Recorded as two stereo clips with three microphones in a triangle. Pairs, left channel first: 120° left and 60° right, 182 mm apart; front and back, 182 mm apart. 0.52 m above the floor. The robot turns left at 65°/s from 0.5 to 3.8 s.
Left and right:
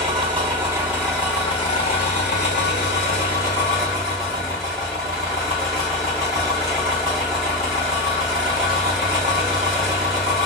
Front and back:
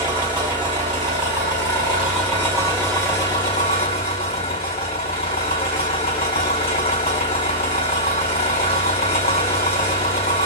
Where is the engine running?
115° right, 1.6 m; by 10.5 s 30° left, 1.6 m.